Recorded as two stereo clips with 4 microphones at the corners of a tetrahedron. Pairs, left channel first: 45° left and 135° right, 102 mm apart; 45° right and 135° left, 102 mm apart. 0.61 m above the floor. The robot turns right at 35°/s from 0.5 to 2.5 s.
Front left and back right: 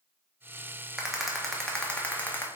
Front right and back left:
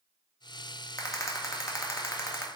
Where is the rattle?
55° right, 0.5 m; by 2.5 s 5° right, 0.5 m.